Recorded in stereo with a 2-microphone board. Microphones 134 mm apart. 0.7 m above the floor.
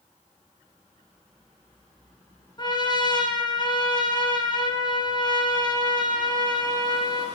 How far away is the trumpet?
About 4 m.